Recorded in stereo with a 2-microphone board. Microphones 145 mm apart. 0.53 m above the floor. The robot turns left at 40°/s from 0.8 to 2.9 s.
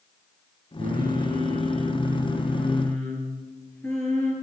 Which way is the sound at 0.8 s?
110° right.